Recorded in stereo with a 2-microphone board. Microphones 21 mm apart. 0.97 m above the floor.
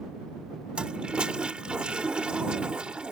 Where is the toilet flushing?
55° right (ahead or behind).